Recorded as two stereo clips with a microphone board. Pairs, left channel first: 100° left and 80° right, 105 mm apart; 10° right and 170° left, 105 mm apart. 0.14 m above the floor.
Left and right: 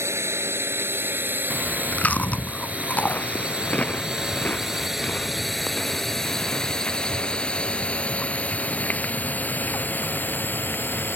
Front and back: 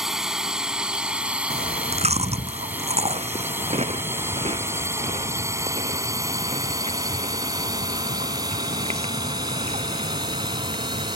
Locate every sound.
0.0 s a drone: 110° right; by 11.2 s 160° left
1.5 s chewing: 175° left